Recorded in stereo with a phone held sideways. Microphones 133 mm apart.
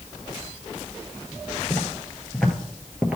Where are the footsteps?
20° left (ahead or behind), 1.3 m; by 3.2 s 10° right (ahead or behind), 1.2 m.